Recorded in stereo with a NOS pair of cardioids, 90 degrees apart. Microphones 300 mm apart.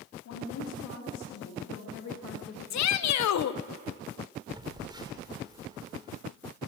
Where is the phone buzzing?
15° right, 2.5 m.